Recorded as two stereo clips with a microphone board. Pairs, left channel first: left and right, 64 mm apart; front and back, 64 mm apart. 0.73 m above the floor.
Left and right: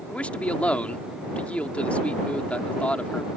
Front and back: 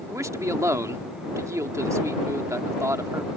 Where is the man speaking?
155° left.